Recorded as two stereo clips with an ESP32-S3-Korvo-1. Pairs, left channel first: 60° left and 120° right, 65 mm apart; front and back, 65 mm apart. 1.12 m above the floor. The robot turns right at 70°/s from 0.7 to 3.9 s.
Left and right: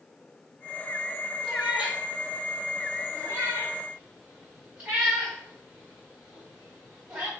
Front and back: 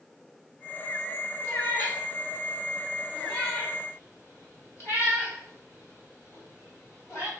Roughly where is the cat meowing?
Behind left.